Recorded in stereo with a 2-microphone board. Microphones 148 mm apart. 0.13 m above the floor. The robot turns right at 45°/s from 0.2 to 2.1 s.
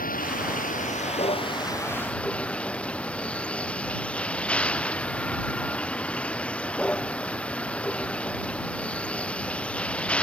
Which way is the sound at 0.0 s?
85° left.